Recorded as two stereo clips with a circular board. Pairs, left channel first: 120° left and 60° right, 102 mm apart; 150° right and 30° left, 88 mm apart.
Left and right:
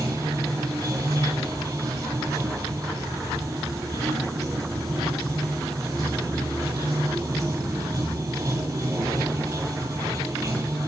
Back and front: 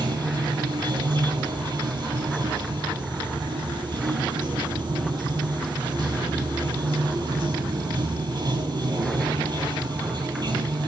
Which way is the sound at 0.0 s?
Straight ahead.